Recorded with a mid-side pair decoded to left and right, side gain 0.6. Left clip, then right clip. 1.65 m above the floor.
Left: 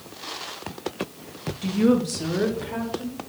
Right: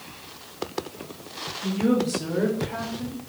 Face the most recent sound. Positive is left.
turn(degrees=10)